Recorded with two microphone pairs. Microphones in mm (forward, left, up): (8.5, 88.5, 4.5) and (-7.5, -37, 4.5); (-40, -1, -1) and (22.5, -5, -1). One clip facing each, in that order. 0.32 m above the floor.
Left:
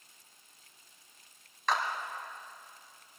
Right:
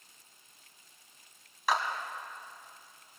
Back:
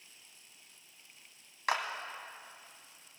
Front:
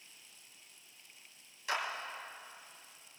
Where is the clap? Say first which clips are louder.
Right 1 dB, back 4 dB; straight behind, 1.9 m.